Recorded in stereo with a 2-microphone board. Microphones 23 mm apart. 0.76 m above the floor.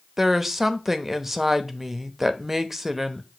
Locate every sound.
0.2 s a woman speaking: 10° right (ahead or behind), 0.8 m